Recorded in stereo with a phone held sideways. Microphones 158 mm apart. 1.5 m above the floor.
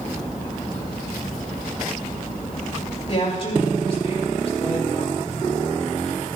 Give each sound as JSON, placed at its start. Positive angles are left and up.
{"t": 3.1, "sound": "a woman speaking", "side_deg": 40, "distance_m": 4.5}